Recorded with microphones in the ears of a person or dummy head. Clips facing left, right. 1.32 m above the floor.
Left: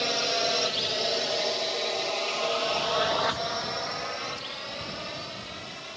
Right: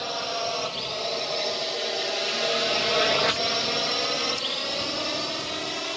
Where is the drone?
30° left (ahead or behind); by 6.0 s 60° right (ahead or behind).